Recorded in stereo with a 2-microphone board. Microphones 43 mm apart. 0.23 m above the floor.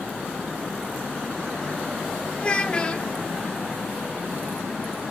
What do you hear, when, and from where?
2.4 s a child speaking: 25° left (ahead or behind), 1.3 m